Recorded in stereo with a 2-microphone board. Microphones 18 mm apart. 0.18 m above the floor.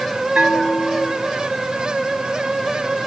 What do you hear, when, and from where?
0.3 s a bell: 50° right (ahead or behind), 1.8 m